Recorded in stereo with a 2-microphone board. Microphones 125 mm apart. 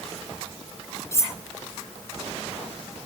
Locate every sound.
1.1 s cutlery clinking: 25° left (ahead or behind), 0.9 m